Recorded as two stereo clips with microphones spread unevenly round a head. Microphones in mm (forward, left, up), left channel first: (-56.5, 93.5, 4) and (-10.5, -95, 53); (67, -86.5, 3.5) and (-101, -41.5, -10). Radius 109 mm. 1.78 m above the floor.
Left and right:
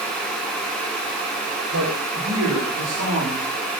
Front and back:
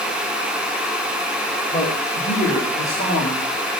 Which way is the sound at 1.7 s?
60° right.